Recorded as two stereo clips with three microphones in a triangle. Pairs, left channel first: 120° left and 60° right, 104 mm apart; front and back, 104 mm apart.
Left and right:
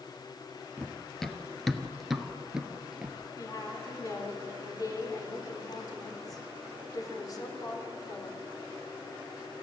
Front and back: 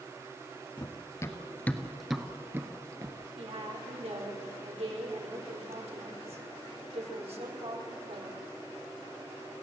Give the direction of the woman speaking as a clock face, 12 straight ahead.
6 o'clock.